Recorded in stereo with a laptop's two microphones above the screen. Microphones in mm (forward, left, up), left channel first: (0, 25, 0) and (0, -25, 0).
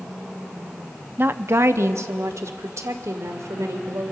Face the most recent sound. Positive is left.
turn(degrees=-85)